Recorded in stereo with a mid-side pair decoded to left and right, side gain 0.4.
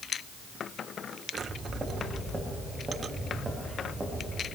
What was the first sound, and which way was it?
Footsteps, 25° right.